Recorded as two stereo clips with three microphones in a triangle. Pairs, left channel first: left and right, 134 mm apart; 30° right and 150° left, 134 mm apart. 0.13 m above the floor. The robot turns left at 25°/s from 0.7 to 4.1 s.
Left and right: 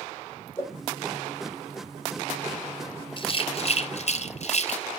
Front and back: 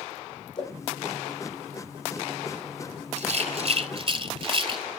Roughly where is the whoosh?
Ahead.